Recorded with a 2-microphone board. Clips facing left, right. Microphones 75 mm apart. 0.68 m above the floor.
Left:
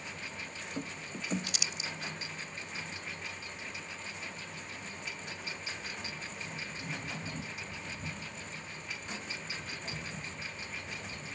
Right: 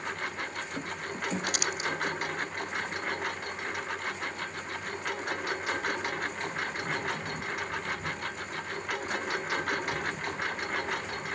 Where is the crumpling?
65° right (ahead or behind).